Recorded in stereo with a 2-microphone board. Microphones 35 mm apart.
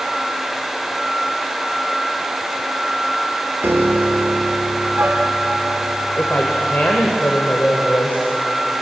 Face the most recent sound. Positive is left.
turn(degrees=60)  # may be behind; listen again after turning